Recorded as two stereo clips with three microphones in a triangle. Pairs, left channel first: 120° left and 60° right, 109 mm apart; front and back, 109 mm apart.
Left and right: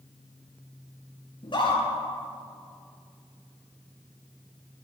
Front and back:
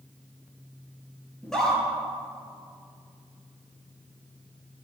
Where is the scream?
85° left, 2.5 m.